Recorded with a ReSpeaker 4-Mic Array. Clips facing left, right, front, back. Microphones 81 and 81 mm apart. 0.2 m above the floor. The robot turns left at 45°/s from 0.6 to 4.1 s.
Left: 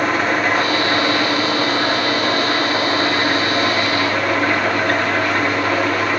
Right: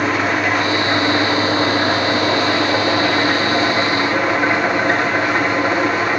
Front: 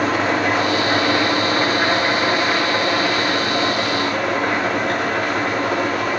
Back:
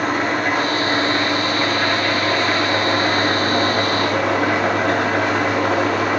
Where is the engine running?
5° right, 6 m; by 6.2 s 160° right, 6 m.